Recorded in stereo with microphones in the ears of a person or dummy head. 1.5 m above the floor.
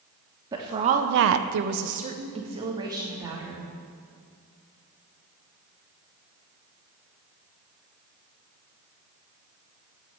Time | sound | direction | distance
0.5 | a woman speaking | 25° right (ahead or behind) | 1.3 m